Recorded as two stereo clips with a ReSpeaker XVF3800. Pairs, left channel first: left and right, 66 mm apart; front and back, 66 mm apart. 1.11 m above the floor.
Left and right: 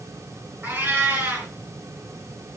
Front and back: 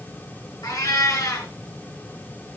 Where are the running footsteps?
No running footsteps in this recording.